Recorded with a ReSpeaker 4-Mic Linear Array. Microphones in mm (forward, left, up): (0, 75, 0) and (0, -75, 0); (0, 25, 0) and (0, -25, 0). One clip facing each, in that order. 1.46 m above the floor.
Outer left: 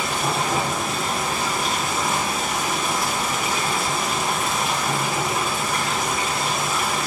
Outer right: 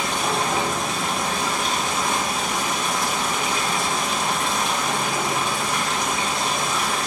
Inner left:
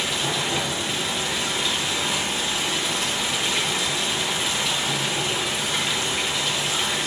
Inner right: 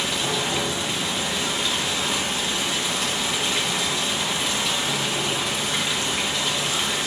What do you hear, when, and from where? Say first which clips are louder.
0.0 s running water: even, even; 5° left (ahead or behind), 1.4 m